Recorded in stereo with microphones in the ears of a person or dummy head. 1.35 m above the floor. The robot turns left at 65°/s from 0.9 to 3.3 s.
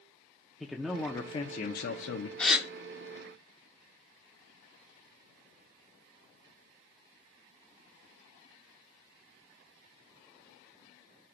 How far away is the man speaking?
About 0.9 m.